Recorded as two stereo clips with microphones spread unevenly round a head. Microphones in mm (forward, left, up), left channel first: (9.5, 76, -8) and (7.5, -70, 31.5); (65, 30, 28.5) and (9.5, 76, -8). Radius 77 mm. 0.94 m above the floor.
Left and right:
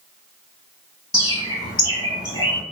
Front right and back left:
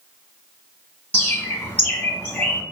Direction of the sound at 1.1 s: 35° left.